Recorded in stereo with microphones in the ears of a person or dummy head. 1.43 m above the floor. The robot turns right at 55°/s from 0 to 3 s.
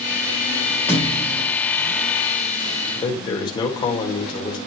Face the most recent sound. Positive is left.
turn(degrees=15)  # may be behind; listen again after turning